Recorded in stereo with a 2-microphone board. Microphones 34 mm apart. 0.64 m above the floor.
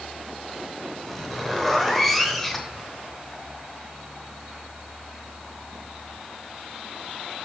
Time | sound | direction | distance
1.1 | a zipper | 5° left (ahead or behind) | 0.8 m